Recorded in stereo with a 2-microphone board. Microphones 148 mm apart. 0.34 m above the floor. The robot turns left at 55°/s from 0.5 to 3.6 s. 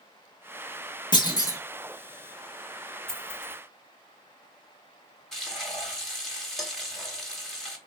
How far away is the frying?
About 0.9 m.